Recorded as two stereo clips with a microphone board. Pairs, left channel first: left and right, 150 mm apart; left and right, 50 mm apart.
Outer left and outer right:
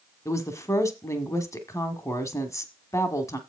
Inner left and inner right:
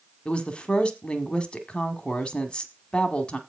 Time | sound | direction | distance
0.2 | a woman speaking | 20° left (ahead or behind) | 1.3 m